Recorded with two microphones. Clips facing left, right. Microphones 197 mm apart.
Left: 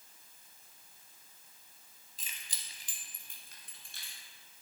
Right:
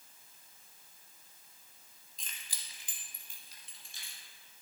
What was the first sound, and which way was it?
Keys jangling, 5° left (ahead or behind).